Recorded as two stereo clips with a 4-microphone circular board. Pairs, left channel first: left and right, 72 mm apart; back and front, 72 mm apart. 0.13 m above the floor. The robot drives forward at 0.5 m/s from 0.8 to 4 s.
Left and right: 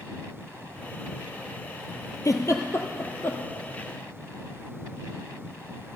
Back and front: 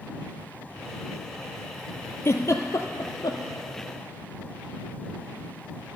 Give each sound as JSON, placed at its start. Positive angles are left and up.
{"t": 2.2, "sound": "a giggle", "azimuth_deg": 130, "distance_m": 0.9}